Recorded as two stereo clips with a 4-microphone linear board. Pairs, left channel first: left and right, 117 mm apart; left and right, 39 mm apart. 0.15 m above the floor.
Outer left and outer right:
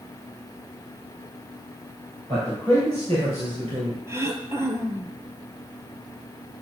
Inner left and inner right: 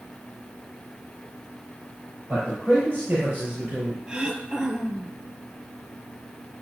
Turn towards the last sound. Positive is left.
turn(degrees=-25)  # may be behind; listen again after turning